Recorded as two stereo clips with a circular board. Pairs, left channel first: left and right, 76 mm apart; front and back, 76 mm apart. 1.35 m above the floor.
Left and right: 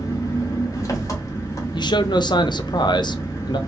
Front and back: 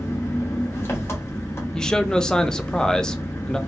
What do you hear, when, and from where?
0.0 s an engine running: 55° left, 1.1 m
1.7 s a man speaking: 80° left, 0.5 m